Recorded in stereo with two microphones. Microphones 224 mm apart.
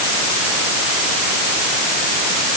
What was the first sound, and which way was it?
Only background noise.